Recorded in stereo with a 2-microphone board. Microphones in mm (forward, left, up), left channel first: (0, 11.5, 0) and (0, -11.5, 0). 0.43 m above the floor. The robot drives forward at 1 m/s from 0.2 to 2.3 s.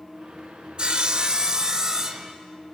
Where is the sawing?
40° right (ahead or behind), 1.1 m; by 2.3 s 20° right (ahead or behind), 2 m.